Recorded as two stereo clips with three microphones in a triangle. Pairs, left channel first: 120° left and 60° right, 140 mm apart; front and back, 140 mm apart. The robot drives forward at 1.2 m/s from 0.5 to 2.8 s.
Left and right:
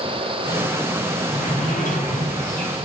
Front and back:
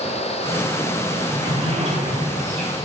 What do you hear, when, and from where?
1.1 s a sliding door: 135° left, 8 m; by 2.9 s 145° left, 9.5 m